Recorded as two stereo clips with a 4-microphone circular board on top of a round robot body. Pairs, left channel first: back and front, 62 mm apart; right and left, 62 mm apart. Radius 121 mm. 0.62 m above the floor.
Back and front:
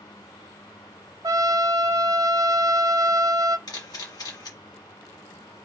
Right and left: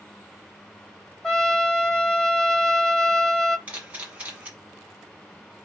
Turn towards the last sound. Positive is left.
turn(degrees=160)